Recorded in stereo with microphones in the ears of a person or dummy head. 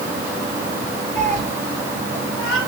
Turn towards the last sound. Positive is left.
turn(degrees=20)  # may be behind; listen again after turning